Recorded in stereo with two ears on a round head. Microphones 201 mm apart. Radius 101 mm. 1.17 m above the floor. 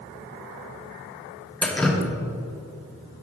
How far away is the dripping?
About 0.6 m.